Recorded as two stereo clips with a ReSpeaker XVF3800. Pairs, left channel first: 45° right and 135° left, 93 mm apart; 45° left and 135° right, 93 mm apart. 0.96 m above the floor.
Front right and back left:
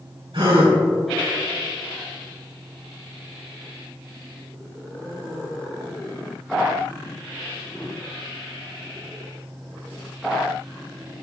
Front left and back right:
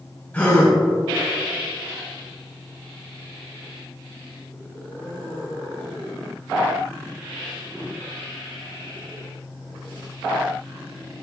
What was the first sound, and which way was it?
A gasp, 115° left.